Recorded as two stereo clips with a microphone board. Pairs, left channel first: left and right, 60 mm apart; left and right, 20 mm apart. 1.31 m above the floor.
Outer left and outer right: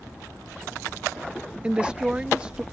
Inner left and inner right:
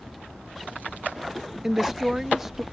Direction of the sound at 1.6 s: 20° right (ahead or behind).